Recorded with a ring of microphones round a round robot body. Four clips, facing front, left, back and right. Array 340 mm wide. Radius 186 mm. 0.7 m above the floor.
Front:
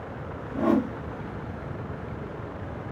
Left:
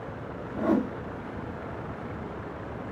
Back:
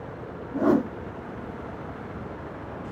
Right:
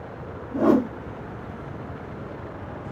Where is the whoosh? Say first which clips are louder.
Right 6 dB, back 2 dB; 105° right, 0.6 m.